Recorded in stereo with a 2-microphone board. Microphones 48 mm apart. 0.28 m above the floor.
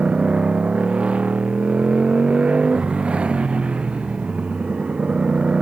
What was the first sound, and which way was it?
A motorcycle, 20° right (ahead or behind).